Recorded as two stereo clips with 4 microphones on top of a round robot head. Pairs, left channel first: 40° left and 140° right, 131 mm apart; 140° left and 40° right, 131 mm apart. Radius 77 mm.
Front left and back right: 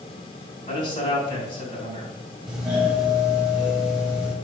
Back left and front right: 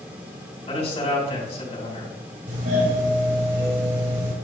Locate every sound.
0.7 s a man speaking: 95° left, 4 m
2.5 s a doorbell: 55° right, 3.5 m